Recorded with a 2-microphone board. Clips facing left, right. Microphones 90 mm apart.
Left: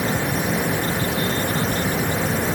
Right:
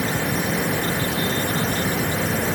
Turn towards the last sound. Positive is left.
No sound to turn to.